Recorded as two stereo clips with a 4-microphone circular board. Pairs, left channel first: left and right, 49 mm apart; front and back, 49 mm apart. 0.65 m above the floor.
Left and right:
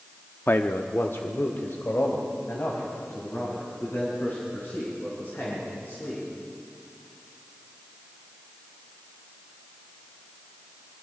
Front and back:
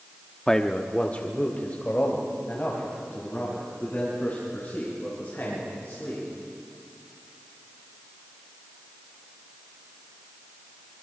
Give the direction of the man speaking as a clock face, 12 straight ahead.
9 o'clock.